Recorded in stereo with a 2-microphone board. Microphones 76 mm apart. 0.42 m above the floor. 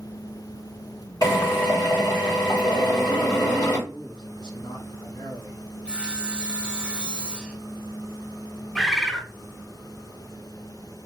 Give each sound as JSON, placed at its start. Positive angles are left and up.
{"t": 1.2, "sound": "a drill", "side_deg": 55, "distance_m": 3.5}
{"t": 3.9, "sound": "a man speaking", "side_deg": 70, "distance_m": 3.5}
{"t": 5.8, "sound": "sawing", "side_deg": -10, "distance_m": 0.9}
{"t": 8.8, "sound": "a bird", "side_deg": 5, "distance_m": 0.8}